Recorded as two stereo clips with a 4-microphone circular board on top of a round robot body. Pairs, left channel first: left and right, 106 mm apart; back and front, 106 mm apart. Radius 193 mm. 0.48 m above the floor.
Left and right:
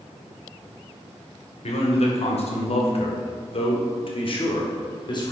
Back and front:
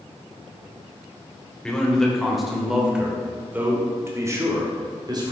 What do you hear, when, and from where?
1.6 s a man speaking: 100° left, 2.5 m; by 5.3 s 45° left, 2.5 m